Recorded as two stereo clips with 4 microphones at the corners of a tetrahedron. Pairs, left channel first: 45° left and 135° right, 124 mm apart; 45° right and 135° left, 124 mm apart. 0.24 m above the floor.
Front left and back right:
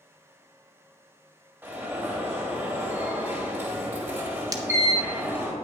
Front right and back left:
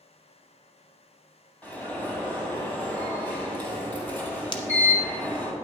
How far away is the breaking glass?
About 0.8 m.